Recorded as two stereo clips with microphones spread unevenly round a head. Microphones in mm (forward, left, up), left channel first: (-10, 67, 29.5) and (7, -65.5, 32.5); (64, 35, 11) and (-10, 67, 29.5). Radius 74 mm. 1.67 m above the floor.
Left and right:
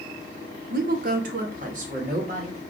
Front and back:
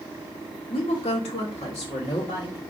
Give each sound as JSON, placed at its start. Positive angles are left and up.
{"t": 0.7, "sound": "a woman speaking", "azimuth_deg": -70, "distance_m": 0.6}